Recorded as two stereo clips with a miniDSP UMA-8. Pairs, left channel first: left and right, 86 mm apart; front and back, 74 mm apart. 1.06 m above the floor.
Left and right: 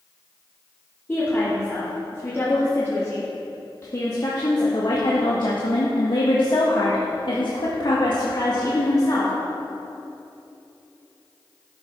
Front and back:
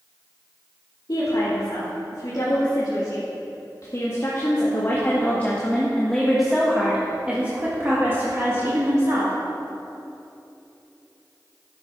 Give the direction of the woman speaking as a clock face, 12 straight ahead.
11 o'clock.